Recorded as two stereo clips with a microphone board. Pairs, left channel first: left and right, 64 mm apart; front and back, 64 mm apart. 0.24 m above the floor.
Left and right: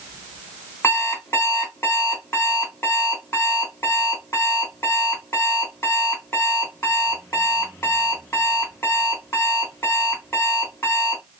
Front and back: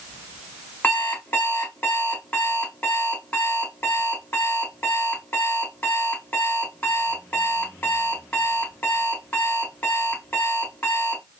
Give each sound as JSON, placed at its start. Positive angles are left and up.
{"t": 0.8, "sound": "an alarm clock", "azimuth_deg": 50, "distance_m": 1.4}